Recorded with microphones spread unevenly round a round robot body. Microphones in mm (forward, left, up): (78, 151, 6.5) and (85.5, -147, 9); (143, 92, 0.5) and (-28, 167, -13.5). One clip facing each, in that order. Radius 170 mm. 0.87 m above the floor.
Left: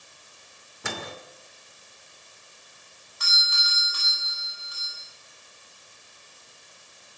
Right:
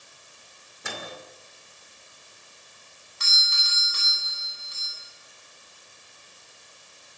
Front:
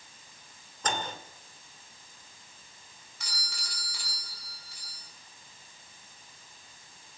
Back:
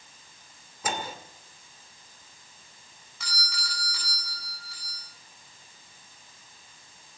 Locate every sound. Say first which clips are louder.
0.8 s a microwave: left 2 dB, back 1 dB; 75° left, 2.5 m
3.2 s a doorbell: left 2 dB, back 6 dB; 155° right, 9.5 m